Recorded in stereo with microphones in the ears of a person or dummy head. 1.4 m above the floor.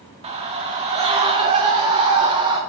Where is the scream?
30° right (ahead or behind), 3 m; by 2.6 s 25° right (ahead or behind), 5.5 m.